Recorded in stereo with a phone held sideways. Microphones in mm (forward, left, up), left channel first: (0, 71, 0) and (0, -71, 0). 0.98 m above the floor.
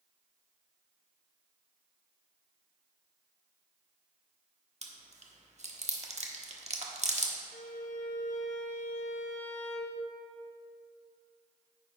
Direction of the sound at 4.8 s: 50° right (ahead or behind).